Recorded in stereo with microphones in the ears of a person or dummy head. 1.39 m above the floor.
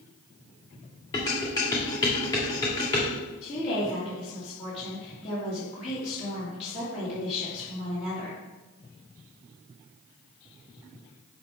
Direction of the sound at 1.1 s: 15° left (ahead or behind).